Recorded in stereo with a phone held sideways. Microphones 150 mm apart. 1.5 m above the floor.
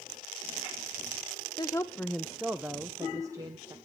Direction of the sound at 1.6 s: 30° left (ahead or behind).